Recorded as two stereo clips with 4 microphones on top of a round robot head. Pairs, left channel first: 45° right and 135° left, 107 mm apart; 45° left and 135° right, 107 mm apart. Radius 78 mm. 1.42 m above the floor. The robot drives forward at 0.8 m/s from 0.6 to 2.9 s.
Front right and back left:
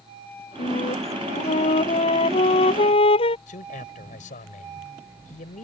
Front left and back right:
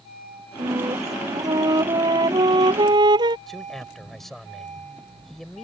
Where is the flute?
75° right; by 3.4 s 85° right.